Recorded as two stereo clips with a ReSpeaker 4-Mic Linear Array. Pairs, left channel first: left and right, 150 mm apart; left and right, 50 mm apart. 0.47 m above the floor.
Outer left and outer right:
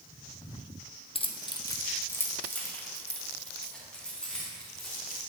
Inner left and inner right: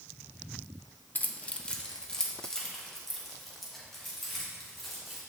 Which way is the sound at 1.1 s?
35° left (ahead or behind).